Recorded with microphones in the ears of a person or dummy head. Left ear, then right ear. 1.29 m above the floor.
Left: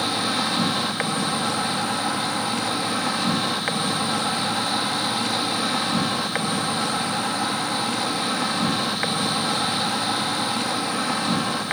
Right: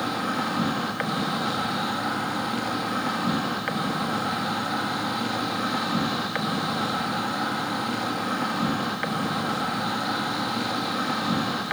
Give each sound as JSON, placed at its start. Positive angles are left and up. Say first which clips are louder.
{"t": 0.0, "sound": "an insect", "louder": "left 4 dB", "side_deg": 15, "distance_m": 1.6}